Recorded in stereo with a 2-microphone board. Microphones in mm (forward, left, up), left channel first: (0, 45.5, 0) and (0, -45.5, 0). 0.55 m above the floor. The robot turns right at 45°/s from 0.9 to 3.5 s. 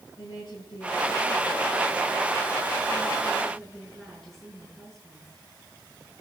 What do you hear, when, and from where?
0.2 s a woman speaking: 60° left, 6 m; by 5.3 s straight behind, 6 m